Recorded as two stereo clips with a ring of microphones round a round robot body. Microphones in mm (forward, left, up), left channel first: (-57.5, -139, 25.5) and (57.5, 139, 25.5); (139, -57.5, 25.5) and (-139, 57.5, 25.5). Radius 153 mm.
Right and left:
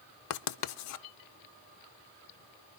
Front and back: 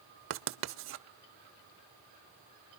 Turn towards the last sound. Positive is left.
turn(degrees=-150)